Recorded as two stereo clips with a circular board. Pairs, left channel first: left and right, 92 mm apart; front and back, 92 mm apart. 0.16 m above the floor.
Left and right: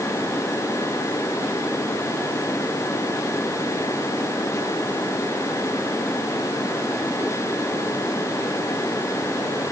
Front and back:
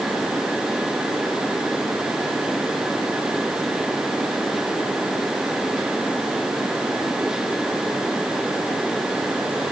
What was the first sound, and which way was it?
Only background noise.